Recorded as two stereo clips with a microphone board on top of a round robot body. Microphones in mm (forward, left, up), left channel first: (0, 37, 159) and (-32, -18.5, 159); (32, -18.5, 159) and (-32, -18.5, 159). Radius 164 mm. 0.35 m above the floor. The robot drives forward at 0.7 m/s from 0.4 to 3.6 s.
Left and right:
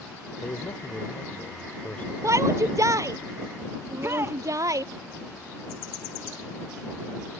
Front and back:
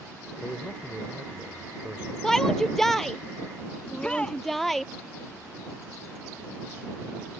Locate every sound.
0.4 s a man speaking: 90° left; by 2.1 s 125° left
2.2 s a shout: 80° right; by 4.8 s 85° right
3.9 s a shout: 75° right